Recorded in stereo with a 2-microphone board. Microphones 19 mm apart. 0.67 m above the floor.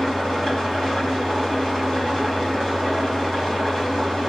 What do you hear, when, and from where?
0.0 s an engine running: 25° left (ahead or behind), 4 m